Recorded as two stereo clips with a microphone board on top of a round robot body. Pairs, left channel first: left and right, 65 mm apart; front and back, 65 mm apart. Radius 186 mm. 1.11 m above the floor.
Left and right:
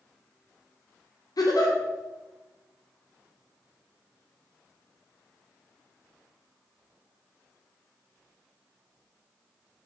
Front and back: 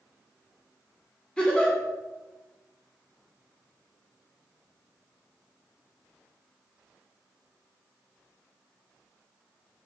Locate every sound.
1.4 s a giggle: 75° left, 2.0 m